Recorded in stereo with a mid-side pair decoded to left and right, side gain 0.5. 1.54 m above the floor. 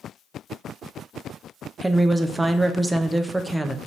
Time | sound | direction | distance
1.8 | a woman speaking | 10° right | 0.6 m